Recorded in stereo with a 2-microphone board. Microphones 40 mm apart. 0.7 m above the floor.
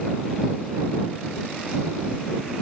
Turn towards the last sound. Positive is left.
No sound to turn to.